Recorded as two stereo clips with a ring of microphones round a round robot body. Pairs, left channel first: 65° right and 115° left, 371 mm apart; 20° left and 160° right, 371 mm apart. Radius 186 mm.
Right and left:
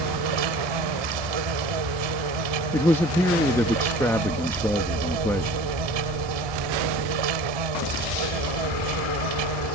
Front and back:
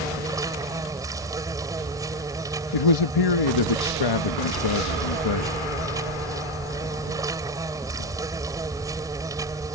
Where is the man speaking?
15° left.